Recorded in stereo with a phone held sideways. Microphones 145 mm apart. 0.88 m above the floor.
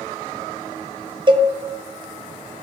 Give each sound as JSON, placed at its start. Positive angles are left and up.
{"t": 1.3, "sound": "a cowbell", "side_deg": -35, "distance_m": 0.8}